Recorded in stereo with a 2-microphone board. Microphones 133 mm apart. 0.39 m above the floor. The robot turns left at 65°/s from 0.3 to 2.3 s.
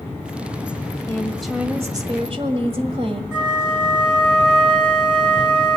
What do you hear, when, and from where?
1.1 s a woman speaking: 25° left, 1.7 m; by 3.2 s 55° right, 1.7 m
3.3 s a flute: 10° right (ahead or behind), 4 m